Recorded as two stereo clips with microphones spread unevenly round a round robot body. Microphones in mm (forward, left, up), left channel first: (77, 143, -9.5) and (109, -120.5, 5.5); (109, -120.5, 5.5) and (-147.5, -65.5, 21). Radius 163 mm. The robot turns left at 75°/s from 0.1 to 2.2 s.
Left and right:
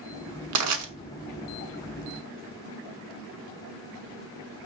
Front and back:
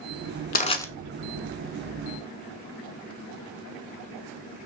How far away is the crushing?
About 0.9 m.